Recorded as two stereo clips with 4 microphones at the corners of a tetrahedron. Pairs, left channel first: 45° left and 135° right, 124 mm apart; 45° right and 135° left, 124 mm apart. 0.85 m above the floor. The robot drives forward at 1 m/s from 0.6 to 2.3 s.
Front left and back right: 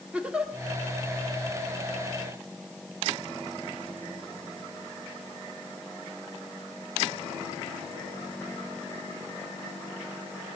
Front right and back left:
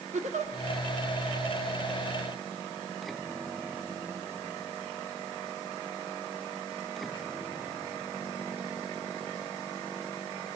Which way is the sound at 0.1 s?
145° left.